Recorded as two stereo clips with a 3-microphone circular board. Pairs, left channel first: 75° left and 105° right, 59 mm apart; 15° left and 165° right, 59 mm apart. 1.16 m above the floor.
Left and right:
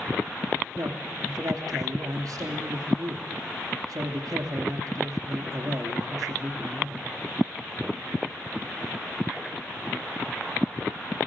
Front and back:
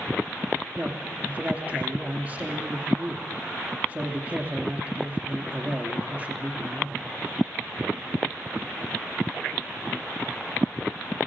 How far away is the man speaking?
About 2.5 m.